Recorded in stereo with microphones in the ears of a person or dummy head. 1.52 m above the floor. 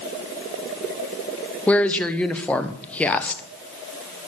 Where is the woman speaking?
10° left (ahead or behind), 0.8 m.